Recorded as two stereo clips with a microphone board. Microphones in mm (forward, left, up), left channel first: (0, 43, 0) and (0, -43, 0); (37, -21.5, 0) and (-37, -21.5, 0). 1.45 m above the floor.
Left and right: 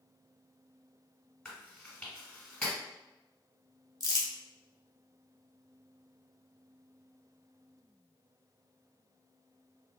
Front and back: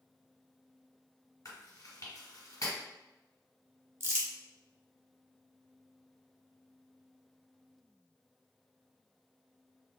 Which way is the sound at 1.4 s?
10° left.